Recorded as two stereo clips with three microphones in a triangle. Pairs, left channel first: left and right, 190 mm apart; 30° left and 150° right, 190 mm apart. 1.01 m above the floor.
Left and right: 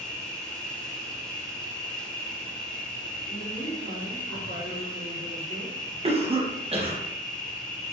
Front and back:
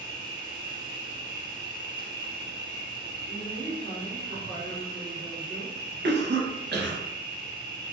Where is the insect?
170° left, 1.1 m.